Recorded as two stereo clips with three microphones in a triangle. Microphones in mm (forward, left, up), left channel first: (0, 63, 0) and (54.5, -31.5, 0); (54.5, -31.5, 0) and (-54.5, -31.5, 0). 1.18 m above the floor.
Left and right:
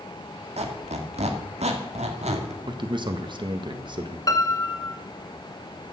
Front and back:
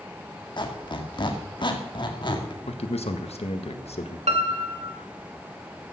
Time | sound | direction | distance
0.6 | a squeak | 45° right | 1.8 m
2.7 | a man speaking | 15° right | 1.5 m
4.3 | a piano | 175° left | 1.5 m